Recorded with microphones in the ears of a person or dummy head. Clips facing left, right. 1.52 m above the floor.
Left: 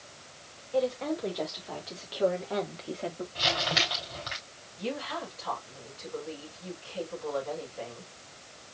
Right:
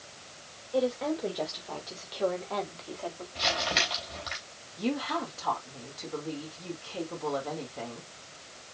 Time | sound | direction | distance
0.7 | a woman speaking | 5° right (ahead or behind) | 3 m
3.4 | crumpling | centre (ahead or behind) | 3 m
4.8 | a woman speaking | 70° right (ahead or behind) | 3.5 m